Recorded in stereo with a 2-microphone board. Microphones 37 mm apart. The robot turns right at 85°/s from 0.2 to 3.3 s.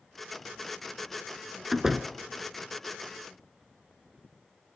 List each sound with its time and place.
1.7 s a door slam: 5° right (ahead or behind), 0.8 m; by 2.1 s 20° right (ahead or behind), 0.8 m